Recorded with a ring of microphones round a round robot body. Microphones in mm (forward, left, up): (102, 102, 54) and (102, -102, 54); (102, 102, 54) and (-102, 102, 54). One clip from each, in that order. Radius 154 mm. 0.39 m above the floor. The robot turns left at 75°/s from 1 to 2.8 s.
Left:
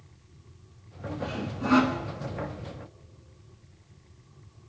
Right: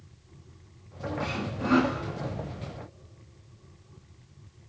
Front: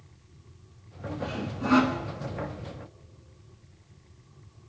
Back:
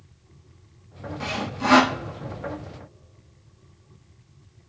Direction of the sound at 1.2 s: 145° right.